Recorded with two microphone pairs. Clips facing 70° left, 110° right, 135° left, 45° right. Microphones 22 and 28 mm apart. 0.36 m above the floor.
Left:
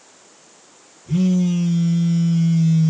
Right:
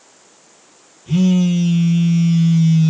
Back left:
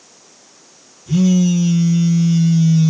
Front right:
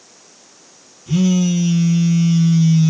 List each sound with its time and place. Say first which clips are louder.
1.1 s a phone buzzing: right 3 dB, back left 2 dB; 120° right, 1.2 m